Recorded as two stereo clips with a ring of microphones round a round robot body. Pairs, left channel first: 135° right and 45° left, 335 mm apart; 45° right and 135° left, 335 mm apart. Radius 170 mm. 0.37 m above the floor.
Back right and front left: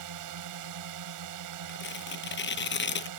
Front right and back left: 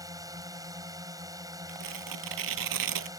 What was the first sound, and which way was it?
A drone, 55° left.